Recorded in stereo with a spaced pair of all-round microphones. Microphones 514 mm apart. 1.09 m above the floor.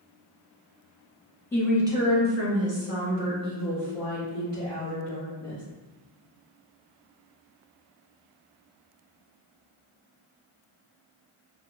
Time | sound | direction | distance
1.5 | a woman speaking | 5° left (ahead or behind) | 0.9 m